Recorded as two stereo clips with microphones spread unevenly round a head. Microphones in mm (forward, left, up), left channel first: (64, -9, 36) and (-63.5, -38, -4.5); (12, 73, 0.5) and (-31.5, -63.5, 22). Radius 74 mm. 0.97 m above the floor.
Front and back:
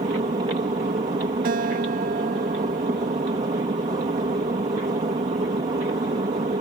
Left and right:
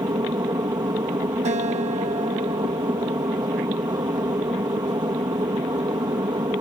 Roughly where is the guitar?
Behind right.